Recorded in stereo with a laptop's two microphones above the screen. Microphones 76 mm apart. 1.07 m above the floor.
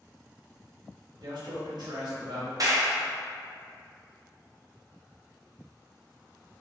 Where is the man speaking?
80° right, 1.8 m.